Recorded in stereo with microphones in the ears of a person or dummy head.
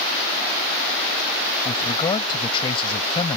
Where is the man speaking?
30° left (ahead or behind).